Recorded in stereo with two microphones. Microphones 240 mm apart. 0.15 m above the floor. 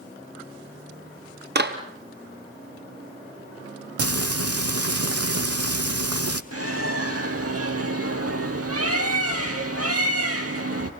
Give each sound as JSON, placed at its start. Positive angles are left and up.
{"t": 1.6, "sound": "a clap", "side_deg": -45, "distance_m": 3.0}
{"t": 4.0, "sound": "frying", "side_deg": -85, "distance_m": 1.1}
{"t": 6.5, "sound": "a bird", "side_deg": -75, "distance_m": 1.9}